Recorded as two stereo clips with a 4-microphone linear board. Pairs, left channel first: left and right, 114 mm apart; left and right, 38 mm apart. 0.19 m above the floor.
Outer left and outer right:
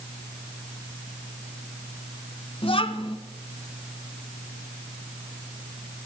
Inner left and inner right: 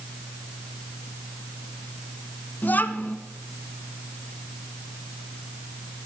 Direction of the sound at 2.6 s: 55° left (ahead or behind).